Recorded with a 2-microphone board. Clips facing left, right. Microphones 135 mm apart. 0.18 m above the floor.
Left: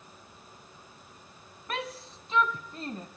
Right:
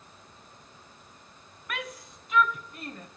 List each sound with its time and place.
1.7 s a shout: 30° left (ahead or behind), 1.1 m; by 3.1 s 25° left (ahead or behind), 1.4 m